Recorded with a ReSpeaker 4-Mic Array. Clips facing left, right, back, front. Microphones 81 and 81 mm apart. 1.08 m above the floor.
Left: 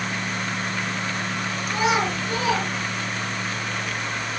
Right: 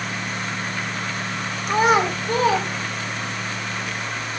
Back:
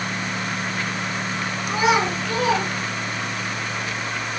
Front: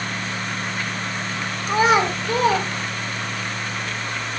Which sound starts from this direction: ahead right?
A child speaking, at 1.7 s.